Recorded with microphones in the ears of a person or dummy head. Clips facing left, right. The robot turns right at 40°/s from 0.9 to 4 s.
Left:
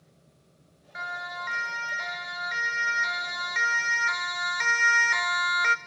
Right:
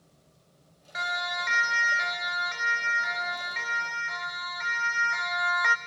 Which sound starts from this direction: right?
A siren, at 0.9 s.